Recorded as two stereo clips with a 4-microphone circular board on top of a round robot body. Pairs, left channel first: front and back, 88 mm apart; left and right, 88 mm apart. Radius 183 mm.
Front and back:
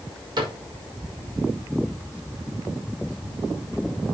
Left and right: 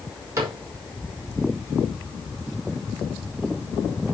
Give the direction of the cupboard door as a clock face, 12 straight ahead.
5 o'clock.